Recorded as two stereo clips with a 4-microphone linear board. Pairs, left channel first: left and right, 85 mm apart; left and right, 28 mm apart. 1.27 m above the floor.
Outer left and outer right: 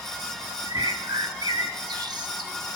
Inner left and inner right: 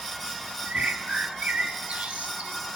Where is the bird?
60° right (ahead or behind), 1.2 m.